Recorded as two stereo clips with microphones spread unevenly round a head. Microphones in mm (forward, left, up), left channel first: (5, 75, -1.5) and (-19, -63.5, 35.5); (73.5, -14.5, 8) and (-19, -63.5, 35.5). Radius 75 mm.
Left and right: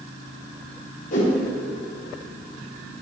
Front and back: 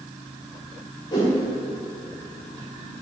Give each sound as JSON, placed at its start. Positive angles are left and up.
{"t": 1.1, "sound": "a whoosh", "azimuth_deg": 95, "distance_m": 1.4}